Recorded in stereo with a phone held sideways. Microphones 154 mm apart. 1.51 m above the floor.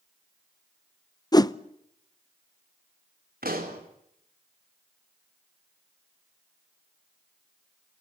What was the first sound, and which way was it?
A whoosh, 25° left (ahead or behind).